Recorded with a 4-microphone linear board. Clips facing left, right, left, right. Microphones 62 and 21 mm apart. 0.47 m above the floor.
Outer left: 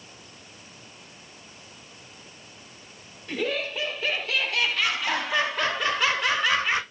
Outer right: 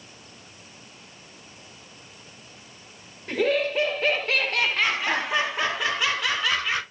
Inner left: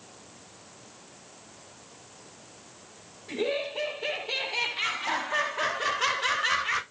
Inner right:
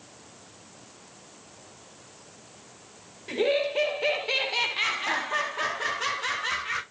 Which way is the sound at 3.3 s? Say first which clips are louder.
Outer right 6 dB, inner right 5 dB; 60° right (ahead or behind).